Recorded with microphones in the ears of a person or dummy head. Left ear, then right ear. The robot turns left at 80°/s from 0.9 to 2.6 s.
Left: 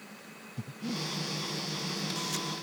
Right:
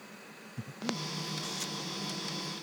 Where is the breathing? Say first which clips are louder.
Even; 20° right (ahead or behind); by 1.0 s 10° right (ahead or behind).